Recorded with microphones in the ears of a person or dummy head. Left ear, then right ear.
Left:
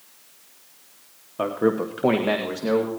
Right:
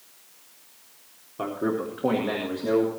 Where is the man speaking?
25° left (ahead or behind), 1.0 m; by 2.9 s 80° left, 2.5 m.